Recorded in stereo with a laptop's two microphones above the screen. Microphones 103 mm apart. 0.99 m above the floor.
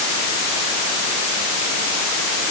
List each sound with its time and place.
Only background noise.